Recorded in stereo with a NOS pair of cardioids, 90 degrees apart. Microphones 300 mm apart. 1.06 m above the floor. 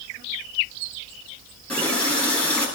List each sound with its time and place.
1.7 s a running tap: 5° left, 8.5 m